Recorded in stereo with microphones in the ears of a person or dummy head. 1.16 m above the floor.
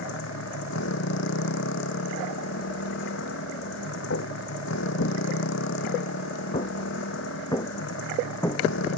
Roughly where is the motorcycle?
Left.